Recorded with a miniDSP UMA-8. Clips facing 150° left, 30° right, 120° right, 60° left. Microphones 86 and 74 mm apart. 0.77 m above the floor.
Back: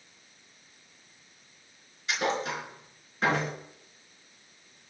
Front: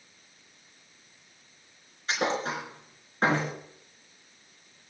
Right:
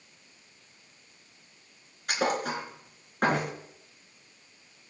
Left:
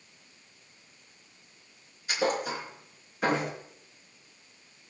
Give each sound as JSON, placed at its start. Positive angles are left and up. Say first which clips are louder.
{"t": 2.1, "sound": "a thud", "louder": "front 1 dB, even", "azimuth_deg": -85, "distance_m": 4.0}